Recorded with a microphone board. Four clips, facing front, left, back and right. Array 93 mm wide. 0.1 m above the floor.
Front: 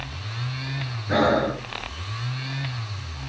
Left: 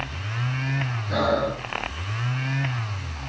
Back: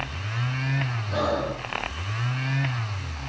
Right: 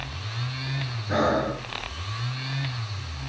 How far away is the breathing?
About 5.5 m.